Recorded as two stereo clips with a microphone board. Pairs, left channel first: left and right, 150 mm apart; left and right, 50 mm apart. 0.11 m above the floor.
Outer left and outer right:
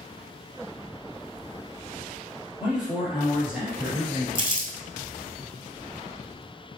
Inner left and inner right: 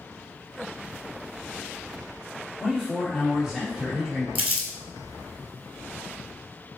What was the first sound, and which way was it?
A man speaking, 5° right (ahead or behind).